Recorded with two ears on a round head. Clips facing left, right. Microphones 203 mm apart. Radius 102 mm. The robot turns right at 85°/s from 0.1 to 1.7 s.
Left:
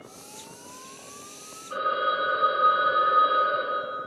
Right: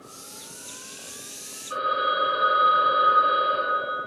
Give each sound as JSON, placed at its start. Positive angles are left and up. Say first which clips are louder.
{"t": 1.7, "sound": "a phone ringing", "louder": "even", "side_deg": -25, "distance_m": 0.9}